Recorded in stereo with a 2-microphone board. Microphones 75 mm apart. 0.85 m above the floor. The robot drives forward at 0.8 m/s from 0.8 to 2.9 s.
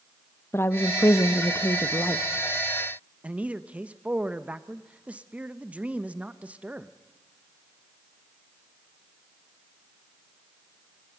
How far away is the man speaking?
About 0.9 m.